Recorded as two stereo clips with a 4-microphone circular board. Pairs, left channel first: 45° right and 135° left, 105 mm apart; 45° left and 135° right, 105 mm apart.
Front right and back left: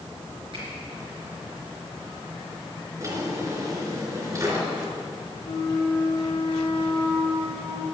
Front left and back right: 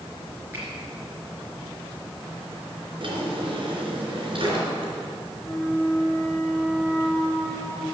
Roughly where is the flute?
Ahead right.